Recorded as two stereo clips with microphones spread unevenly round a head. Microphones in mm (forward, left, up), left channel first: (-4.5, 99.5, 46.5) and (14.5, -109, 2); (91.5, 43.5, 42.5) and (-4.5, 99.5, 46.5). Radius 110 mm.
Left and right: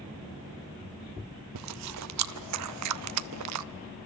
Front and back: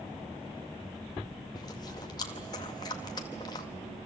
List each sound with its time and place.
1.6 s chewing: 100° right, 0.6 m